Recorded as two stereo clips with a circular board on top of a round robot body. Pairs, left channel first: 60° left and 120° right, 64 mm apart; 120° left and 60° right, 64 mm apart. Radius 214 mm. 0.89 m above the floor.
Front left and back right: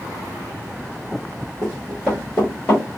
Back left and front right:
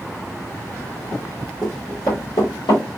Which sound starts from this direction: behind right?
Running footsteps, at 1.6 s.